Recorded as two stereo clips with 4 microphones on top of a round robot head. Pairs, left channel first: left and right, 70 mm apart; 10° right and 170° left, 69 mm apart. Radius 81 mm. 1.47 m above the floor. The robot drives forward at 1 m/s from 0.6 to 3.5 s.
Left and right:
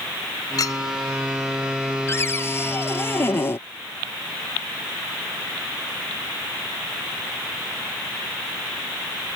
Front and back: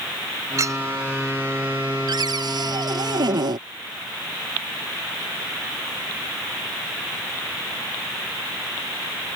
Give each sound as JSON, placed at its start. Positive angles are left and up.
{"t": 0.6, "sound": "a clink", "azimuth_deg": 125}
{"t": 2.1, "sound": "a cupboard door", "azimuth_deg": 145}